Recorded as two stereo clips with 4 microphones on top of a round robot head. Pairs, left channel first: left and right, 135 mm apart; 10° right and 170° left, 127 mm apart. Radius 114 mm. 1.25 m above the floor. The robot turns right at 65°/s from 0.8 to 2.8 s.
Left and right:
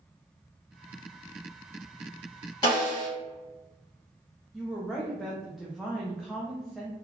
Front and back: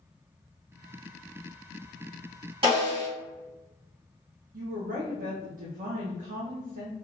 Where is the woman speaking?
Straight behind, 0.6 m.